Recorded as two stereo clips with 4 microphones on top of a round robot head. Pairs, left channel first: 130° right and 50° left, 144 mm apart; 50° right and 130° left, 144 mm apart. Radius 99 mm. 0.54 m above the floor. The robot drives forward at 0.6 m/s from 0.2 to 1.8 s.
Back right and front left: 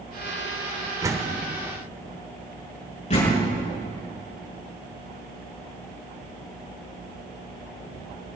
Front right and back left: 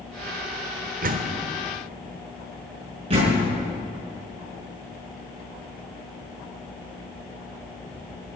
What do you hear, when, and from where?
1.0 s a door slam: 115° left, 1.3 m; by 1.4 s 125° left, 1.4 m
3.1 s a door slam: 175° right, 5.5 m